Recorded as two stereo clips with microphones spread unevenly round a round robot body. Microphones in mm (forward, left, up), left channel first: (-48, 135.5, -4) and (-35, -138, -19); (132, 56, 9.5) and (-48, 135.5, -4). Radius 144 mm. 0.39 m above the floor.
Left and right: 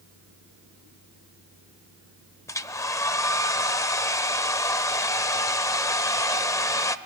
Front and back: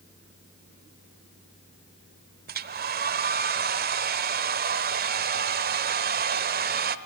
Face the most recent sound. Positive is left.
turn(degrees=170)